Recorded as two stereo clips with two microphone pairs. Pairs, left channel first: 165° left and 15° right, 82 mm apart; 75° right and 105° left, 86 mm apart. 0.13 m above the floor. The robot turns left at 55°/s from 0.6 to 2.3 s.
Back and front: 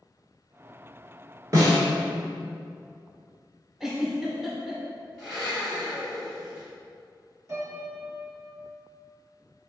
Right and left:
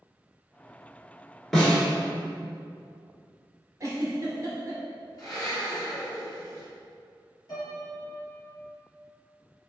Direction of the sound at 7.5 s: 60° right.